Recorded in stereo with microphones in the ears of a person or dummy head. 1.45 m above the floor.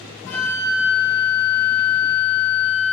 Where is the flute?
60° left (ahead or behind), 1.9 m.